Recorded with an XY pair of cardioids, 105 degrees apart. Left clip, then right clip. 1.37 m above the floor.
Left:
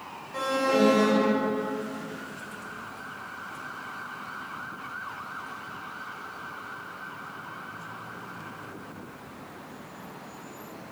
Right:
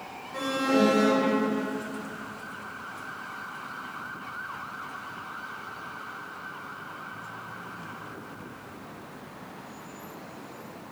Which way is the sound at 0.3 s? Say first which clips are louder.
Left 1 dB; 10° left.